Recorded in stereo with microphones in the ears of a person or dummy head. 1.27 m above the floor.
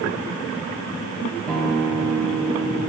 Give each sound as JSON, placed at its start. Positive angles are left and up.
{"t": 1.5, "sound": "a guitar", "side_deg": 5, "distance_m": 3.0}